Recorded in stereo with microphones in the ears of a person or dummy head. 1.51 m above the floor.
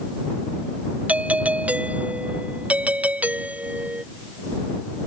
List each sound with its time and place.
1.1 s a doorbell: 5° right (ahead or behind)